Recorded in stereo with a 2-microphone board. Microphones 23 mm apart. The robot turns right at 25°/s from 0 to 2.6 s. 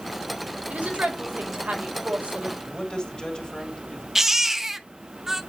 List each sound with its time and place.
0.7 s a woman speaking: 105° right, 2.5 m; by 2.6 s 60° right, 2.5 m
2.7 s a man speaking: 30° left (ahead or behind), 3 m
4.2 s a baby crying: 10° right (ahead or behind), 0.9 m